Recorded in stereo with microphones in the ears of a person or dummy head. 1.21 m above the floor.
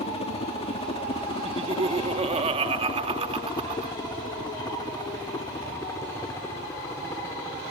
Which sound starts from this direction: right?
Laughter, at 1.4 s.